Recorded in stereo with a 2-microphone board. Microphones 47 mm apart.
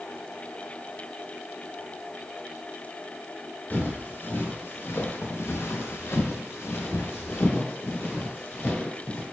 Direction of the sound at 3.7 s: 40° left (ahead or behind).